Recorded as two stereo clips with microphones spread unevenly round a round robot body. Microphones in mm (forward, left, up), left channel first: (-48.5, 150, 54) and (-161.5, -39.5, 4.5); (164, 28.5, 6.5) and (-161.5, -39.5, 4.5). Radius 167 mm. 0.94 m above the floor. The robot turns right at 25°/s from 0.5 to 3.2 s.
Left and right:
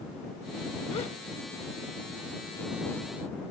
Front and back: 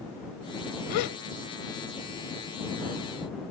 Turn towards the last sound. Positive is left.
turn(degrees=45)